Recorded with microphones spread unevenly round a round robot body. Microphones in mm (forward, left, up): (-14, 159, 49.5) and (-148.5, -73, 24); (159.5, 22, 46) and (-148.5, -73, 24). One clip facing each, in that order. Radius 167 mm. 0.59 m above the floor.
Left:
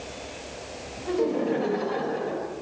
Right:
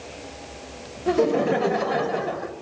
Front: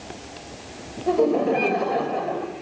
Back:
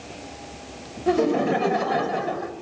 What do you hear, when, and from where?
1.1 s laughter: 115° right, 3.5 m